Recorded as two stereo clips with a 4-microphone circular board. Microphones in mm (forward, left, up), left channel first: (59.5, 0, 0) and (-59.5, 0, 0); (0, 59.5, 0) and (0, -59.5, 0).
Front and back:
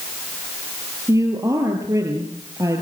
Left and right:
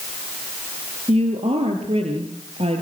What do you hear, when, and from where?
1.1 s a woman speaking: 120° right, 5 m